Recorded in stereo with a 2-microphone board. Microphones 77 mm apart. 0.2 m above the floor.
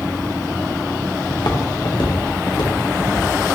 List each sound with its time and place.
1.3 s footsteps: 65° left (ahead or behind), 2.5 m; by 3.3 s 80° left, 4.5 m